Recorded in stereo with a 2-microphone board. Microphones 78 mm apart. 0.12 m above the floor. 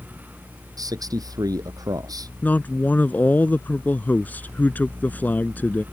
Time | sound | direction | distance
0.8 | a man speaking | 50° right (ahead or behind) | ?
2.4 | a man speaking | 20° left (ahead or behind) | ?